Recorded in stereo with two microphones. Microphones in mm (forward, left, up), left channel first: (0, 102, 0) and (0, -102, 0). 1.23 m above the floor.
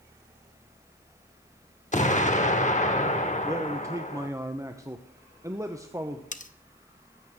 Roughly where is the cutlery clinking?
Left.